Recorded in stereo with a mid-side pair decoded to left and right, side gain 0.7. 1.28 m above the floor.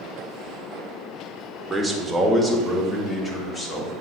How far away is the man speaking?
About 1.4 m.